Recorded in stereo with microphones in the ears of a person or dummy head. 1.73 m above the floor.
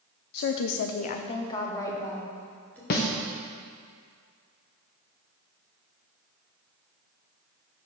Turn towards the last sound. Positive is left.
turn(degrees=40)  # may be behind; listen again after turning